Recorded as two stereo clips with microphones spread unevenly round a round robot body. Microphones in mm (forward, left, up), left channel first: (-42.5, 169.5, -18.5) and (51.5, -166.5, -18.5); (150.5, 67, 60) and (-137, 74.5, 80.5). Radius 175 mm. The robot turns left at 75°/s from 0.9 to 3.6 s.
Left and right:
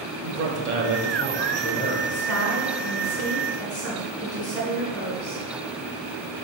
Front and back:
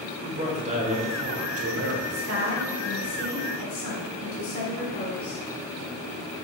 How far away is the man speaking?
About 2.0 m.